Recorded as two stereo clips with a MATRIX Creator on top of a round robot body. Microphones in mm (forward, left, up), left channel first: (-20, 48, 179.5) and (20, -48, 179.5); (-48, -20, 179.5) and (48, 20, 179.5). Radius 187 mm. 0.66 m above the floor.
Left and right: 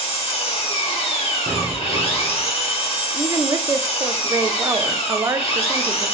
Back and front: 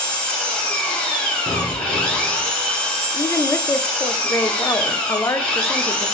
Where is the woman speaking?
110° right, 0.5 m.